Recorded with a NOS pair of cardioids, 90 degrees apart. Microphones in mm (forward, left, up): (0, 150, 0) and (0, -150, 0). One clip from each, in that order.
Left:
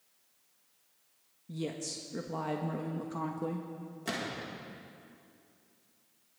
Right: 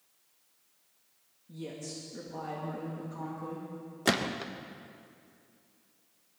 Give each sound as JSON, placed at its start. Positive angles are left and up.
{"t": 1.5, "sound": "a woman speaking", "azimuth_deg": 50, "distance_m": 1.5}
{"t": 4.0, "sound": "a gunshot", "azimuth_deg": -65, "distance_m": 1.2}